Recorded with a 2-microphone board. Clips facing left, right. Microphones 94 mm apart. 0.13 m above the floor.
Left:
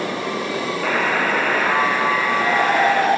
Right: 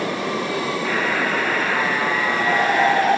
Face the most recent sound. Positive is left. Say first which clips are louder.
# left 5 dB
turn(degrees=80)